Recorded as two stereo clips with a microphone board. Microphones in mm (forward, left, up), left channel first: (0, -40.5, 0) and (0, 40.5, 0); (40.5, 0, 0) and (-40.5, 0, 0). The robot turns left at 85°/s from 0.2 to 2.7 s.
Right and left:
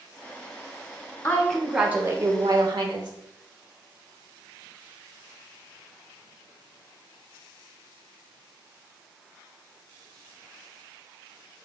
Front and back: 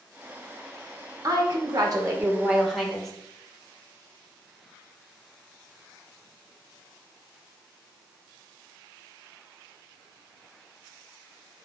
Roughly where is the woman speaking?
Behind right.